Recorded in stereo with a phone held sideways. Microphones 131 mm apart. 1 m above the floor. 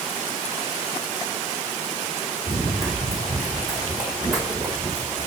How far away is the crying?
No crying in this recording.